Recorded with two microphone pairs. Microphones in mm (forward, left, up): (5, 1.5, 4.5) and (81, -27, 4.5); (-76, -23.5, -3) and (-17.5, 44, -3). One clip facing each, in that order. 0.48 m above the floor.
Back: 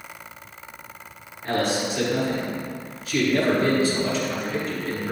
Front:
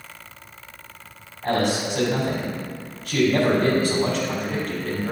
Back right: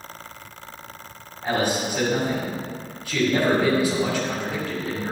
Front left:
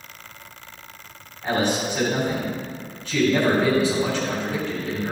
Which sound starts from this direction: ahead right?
A man speaking, at 1.4 s.